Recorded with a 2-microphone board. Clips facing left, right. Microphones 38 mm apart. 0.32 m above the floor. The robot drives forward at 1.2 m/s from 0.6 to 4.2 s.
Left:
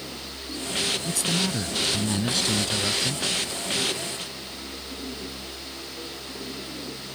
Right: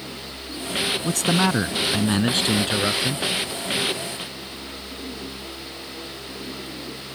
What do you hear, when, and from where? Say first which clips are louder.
1.0 s a man speaking: right 6 dB; 60° right (ahead or behind); by 3.2 s 30° right (ahead or behind)